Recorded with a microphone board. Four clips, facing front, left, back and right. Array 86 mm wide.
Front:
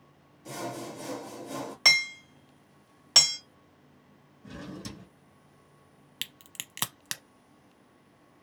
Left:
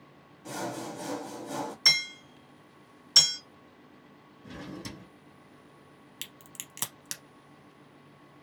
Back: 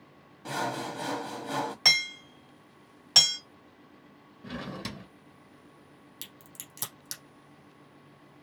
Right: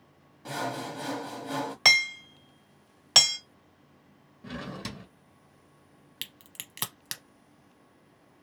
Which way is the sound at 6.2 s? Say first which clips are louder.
Right 2 dB, front 3 dB; 15° right.